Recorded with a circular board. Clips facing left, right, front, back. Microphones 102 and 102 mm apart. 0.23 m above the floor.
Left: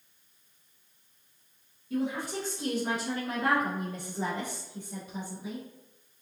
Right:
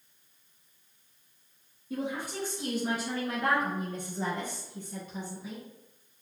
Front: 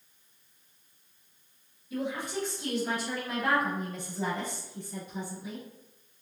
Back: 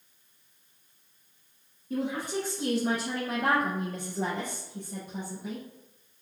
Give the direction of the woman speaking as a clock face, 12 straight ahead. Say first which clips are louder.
Left 3 dB, back 3 dB; 5 o'clock.